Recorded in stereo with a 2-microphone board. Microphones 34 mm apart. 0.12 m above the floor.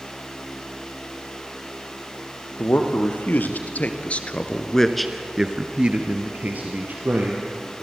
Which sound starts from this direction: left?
A man speaking, at 2.6 s.